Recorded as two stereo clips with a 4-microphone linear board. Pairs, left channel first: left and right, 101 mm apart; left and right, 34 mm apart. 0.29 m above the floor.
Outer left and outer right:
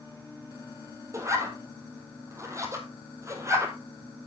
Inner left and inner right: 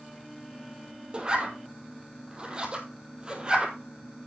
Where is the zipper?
30° right (ahead or behind), 1.7 m.